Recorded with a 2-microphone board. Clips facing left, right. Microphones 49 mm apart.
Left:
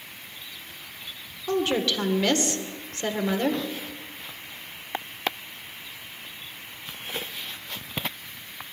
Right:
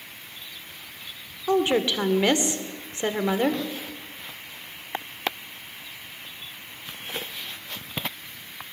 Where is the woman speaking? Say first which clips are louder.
Right 3 dB; 20° right (ahead or behind), 1.9 m.